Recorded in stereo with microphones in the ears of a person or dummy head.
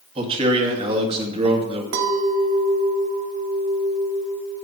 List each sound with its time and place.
0.1 s a man speaking: 25° right (ahead or behind), 1.8 m
1.9 s a clink: 70° right (ahead or behind), 1.5 m